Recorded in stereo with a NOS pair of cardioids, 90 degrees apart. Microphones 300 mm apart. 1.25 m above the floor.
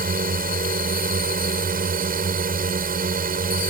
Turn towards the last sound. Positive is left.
turn(degrees=-30)